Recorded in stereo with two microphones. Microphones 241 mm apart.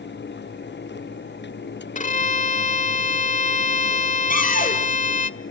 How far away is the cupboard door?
About 3 m.